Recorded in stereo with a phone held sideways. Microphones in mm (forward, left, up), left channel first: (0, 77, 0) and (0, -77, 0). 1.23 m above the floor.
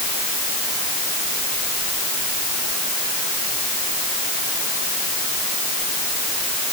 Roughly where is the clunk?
No clunk in this recording.